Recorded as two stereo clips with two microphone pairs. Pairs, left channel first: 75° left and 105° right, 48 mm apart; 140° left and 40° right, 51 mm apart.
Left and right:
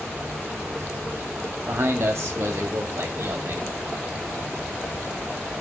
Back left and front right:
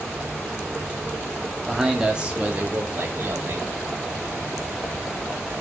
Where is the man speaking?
125° right, 1.9 m; by 3.7 s 75° right, 3 m.